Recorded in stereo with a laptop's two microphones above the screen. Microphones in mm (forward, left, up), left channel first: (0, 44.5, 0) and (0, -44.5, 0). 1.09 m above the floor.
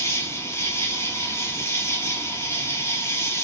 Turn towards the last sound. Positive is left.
turn(degrees=30)  # may be behind; listen again after turning